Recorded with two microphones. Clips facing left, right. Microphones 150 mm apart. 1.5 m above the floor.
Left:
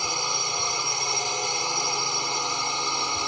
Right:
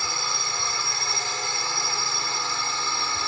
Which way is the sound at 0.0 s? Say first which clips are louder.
Left 2 dB; 15° left (ahead or behind).